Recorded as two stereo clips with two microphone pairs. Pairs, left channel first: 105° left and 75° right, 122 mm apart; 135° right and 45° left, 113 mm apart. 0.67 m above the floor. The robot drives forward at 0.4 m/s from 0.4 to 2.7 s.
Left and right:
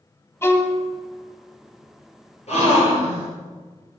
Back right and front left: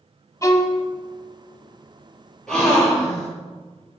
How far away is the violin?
About 0.7 m.